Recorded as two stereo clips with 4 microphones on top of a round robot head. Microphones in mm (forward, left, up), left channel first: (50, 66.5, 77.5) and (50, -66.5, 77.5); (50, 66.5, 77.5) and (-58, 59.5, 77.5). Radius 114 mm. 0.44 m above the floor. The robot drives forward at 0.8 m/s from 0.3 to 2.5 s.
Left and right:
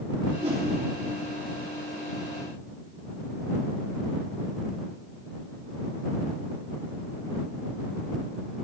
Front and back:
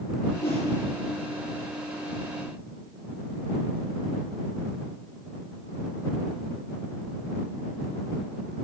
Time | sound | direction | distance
0.4 | a whoosh | 45° right | 5 m